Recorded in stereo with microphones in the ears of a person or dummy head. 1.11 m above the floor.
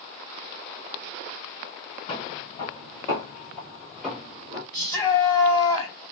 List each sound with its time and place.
2.1 s footsteps: 35° left (ahead or behind), 1.8 m; by 4.6 s 10° right (ahead or behind), 1.6 m
4.7 s a shout: 20° left (ahead or behind), 2.5 m